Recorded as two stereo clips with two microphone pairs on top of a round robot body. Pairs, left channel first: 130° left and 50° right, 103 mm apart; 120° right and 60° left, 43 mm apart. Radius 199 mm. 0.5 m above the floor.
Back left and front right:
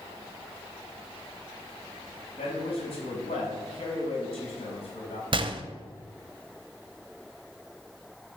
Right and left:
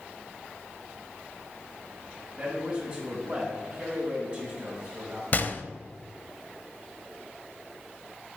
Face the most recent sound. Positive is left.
turn(degrees=-80)